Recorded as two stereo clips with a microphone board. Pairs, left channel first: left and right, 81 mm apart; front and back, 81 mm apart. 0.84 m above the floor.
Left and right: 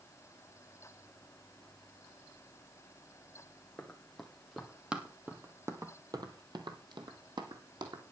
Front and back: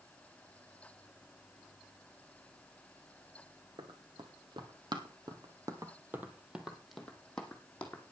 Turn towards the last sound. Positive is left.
turn(degrees=-70)